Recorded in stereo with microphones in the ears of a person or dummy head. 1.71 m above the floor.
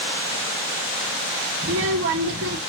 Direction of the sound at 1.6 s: 65° right (ahead or behind).